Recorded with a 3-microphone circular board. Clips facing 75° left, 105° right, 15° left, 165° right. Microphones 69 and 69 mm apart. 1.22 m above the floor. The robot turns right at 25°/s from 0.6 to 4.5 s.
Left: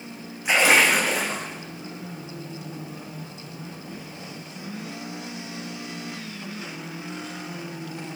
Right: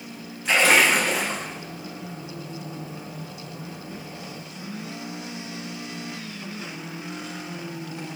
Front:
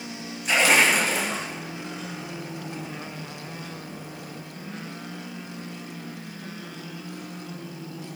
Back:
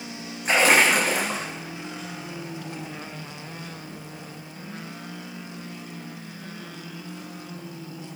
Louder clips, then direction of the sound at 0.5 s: Even, back 1 dB; 145° left.